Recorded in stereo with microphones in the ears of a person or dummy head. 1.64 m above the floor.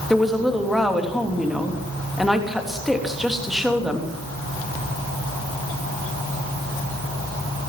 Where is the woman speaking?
Centre (ahead or behind), 3 m.